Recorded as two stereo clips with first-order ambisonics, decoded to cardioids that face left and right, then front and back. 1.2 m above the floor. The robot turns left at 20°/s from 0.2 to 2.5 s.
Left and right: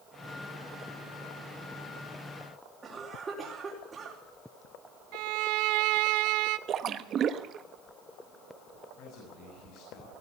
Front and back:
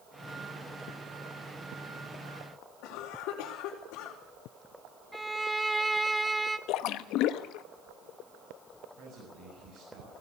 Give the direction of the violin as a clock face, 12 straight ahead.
3 o'clock.